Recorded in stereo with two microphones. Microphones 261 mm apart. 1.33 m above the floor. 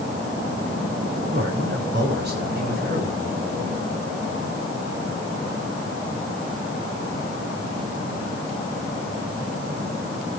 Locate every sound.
1.3 s a man speaking: 45° right (ahead or behind), 4.5 m; by 3.4 s 35° right (ahead or behind), 6.5 m